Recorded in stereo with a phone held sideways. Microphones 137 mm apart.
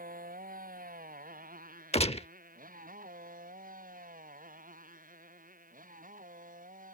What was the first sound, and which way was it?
A motorcycle, 90° right.